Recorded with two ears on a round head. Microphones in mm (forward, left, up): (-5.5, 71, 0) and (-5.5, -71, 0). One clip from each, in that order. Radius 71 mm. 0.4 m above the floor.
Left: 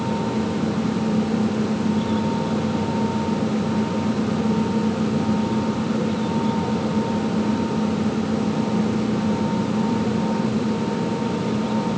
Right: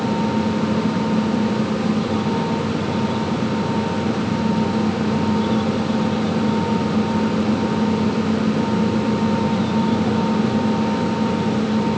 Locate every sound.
Only background noise.